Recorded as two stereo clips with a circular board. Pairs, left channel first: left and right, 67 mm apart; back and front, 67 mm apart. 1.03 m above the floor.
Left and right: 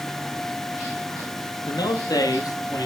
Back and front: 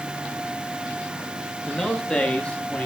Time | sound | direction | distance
1.7 | a man speaking | 95° left | 1.5 m